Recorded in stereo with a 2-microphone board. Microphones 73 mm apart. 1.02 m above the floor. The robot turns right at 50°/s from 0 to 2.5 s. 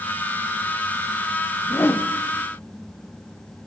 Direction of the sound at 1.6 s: 40° left (ahead or behind).